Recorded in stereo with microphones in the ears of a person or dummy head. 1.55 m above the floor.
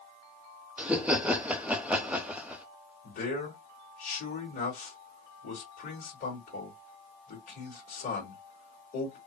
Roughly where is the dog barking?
No dog barking in this recording.